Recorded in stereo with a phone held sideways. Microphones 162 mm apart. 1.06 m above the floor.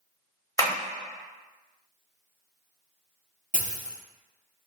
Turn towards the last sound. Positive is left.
turn(degrees=-55)  # may be behind; listen again after turning